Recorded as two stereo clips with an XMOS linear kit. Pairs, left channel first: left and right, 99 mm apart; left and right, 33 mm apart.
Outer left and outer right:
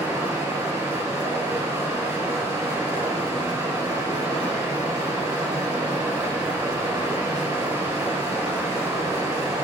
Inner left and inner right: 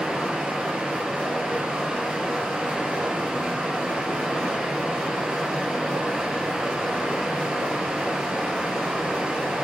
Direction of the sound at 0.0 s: 30° right (ahead or behind).